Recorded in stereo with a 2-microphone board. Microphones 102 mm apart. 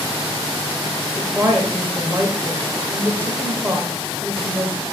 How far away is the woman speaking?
About 1.3 m.